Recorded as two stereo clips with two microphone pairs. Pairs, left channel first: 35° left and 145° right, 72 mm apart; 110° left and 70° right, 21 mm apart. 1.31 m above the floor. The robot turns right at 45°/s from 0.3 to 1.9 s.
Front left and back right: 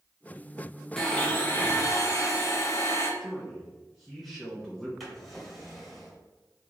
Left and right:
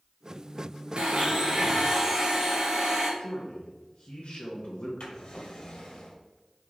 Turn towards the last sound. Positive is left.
turn(degrees=125)